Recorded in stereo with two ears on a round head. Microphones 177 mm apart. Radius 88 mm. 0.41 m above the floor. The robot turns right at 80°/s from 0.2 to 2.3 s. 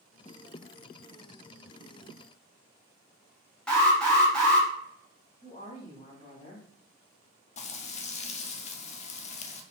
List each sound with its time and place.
3.7 s an alarm: 5° left (ahead or behind), 1.5 m
5.4 s a woman speaking: 30° left (ahead or behind), 1.7 m
7.6 s frying: 35° left (ahead or behind), 0.5 m